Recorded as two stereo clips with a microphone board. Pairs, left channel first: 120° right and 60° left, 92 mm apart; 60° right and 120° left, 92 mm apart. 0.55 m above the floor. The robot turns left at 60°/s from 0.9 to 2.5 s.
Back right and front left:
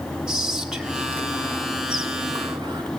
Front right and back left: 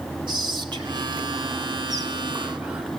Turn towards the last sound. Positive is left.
turn(degrees=45)